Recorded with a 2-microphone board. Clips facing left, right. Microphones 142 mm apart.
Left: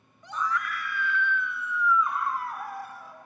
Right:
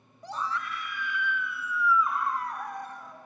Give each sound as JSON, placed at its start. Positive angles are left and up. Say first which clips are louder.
{"t": 0.2, "sound": "a scream", "louder": "left 2 dB", "side_deg": -35, "distance_m": 0.9}